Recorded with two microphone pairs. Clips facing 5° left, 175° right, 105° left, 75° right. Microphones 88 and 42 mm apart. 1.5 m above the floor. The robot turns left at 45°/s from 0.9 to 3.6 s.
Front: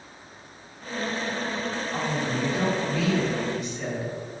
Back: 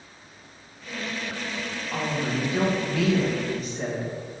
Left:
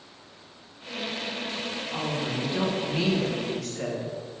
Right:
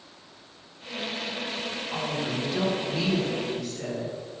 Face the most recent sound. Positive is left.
turn(degrees=130)